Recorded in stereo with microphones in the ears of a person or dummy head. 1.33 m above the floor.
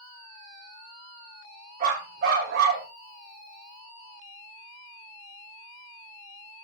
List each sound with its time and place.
1.8 s a dog barking: 40° right (ahead or behind), 3 m; by 2.9 s 55° right (ahead or behind), 3 m